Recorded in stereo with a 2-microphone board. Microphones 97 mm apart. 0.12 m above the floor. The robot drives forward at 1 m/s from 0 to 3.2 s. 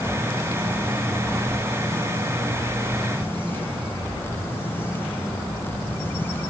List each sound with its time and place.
Only background noise.